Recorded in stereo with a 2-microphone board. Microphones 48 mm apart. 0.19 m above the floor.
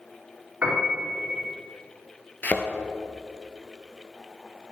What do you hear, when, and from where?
0.6 s a piano: 30° right (ahead or behind), 2.5 m
2.4 s a thud: 40° left (ahead or behind), 0.8 m